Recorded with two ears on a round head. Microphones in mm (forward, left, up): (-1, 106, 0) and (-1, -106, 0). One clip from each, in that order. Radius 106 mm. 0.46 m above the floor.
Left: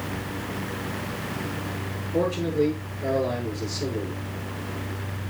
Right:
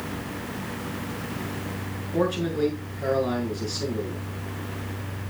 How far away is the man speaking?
About 6.5 m.